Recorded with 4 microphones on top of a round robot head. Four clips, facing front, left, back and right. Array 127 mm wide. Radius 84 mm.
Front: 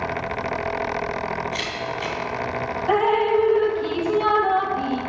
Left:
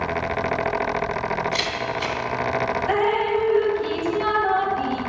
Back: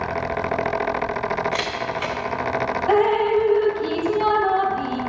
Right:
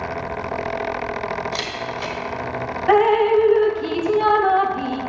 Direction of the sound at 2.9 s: 105° right.